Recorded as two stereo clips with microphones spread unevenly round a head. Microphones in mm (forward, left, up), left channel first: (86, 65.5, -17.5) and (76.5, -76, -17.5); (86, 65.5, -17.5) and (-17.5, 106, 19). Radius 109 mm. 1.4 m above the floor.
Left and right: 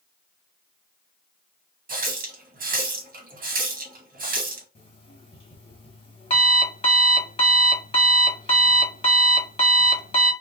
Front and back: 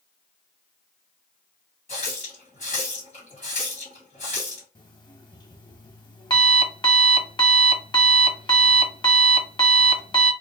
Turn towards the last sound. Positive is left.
turn(degrees=35)